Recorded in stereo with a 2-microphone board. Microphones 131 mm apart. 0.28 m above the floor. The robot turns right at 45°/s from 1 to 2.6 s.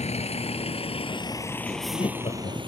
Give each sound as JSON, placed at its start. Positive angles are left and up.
{"t": 0.0, "sound": "a vehicle", "side_deg": 50}
{"t": 1.6, "sound": "laughter", "azimuth_deg": 20}